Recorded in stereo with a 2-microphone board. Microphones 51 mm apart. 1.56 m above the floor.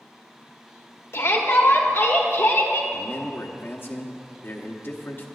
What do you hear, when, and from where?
1.1 s a shout: 65° left (ahead or behind), 1.5 m
2.9 s a man speaking: 50° left (ahead or behind), 1.0 m